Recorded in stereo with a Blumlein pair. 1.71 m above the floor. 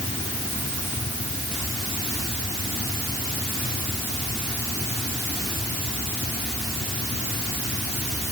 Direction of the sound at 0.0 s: 15° left.